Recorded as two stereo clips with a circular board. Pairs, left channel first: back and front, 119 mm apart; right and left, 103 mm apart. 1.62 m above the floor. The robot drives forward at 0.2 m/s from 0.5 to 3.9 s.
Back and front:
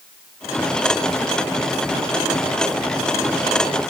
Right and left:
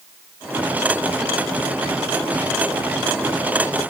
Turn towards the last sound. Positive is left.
No sound to turn to.